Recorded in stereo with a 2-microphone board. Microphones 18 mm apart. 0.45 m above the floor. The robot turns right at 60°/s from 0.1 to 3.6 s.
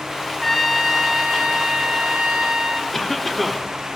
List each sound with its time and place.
0.4 s a trumpet: straight behind, 1.6 m; by 2.8 s 35° right, 1.6 m
2.9 s a cough: 15° left (ahead or behind), 1.0 m; by 3.7 s 5° left (ahead or behind), 1.0 m